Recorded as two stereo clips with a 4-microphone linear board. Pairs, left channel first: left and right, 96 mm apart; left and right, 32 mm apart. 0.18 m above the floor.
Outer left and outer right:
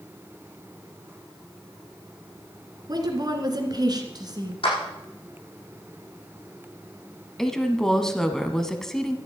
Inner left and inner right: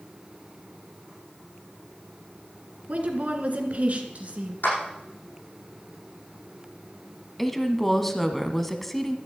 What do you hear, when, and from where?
2.9 s a woman speaking: 45° right (ahead or behind), 2 m
4.6 s a clap: 70° left (ahead or behind), 7.5 m
7.4 s a woman speaking: 5° left (ahead or behind), 1.1 m